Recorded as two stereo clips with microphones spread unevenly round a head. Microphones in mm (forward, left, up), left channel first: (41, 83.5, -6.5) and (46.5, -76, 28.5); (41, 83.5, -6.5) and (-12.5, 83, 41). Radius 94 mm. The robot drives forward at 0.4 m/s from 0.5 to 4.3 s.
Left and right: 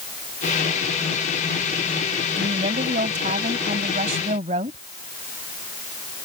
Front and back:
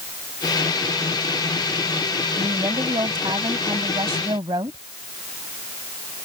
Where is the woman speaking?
145° right.